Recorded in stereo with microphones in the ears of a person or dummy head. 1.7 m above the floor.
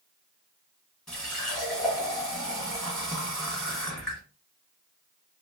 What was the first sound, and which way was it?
A running tap, 10° left (ahead or behind).